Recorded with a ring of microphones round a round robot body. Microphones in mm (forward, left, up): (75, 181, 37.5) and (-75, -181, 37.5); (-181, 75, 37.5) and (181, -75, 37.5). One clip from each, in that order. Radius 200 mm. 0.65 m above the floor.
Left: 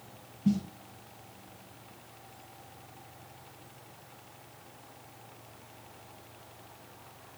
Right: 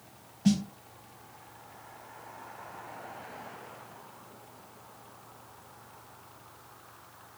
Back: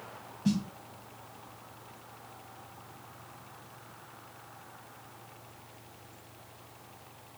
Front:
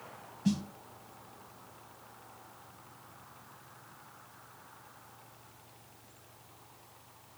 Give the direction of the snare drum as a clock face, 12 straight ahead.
4 o'clock.